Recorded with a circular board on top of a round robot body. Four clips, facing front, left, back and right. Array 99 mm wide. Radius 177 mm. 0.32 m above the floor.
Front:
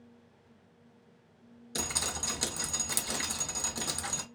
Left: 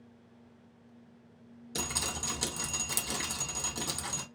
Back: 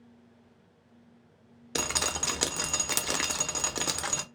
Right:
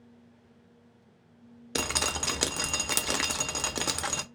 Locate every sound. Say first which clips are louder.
1.8 s dripping: right 6 dB, back 5 dB; 130° right, 0.7 m